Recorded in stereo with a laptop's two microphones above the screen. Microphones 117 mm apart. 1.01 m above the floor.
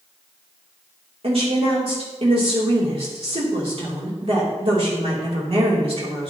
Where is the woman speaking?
55° right (ahead or behind), 3 m.